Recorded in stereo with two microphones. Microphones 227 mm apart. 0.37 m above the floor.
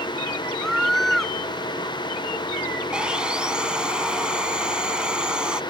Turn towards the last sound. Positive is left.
turn(degrees=-5)  # may be behind; listen again after turning